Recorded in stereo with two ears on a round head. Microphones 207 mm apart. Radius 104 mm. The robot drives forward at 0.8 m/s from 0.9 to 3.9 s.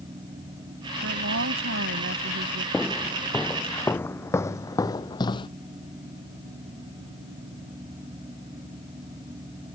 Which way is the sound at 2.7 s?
5° left (ahead or behind).